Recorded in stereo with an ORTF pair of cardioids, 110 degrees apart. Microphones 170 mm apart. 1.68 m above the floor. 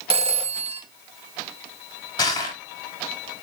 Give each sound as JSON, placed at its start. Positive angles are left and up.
{"t": 0.1, "sound": "a phone ringing", "azimuth_deg": -40, "distance_m": 1.9}
{"t": 2.2, "sound": "crushing", "azimuth_deg": 25, "distance_m": 4.5}